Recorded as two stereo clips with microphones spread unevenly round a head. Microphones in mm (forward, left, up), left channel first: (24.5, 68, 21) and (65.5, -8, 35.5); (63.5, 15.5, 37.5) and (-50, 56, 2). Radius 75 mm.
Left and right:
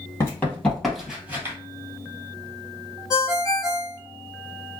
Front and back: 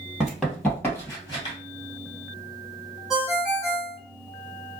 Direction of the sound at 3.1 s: 65° left.